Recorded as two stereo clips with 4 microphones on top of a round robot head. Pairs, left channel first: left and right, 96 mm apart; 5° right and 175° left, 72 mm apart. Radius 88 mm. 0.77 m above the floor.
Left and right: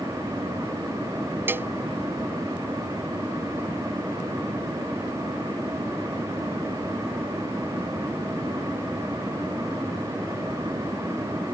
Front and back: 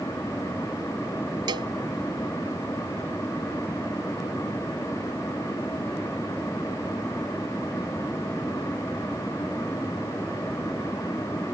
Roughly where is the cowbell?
Behind right.